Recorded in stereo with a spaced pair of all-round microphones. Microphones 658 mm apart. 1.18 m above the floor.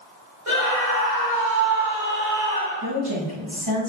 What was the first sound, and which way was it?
A scream, 60° right (ahead or behind).